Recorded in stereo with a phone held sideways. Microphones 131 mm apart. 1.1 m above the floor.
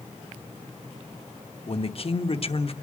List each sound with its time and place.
1.7 s a man speaking: 50° left (ahead or behind), 1.1 m